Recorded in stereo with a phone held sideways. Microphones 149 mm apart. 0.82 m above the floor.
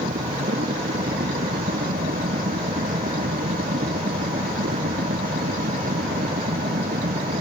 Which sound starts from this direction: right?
A machine running, at 0.0 s.